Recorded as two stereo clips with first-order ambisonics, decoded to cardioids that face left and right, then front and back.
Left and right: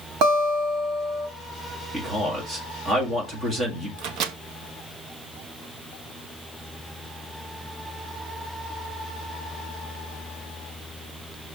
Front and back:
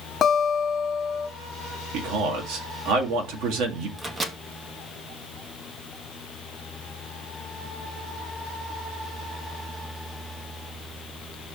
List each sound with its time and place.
0.2 s a guitar: 65° right, 1.9 m
1.9 s a man speaking: 160° right, 2.0 m
4.0 s a microwave: 110° right, 0.8 m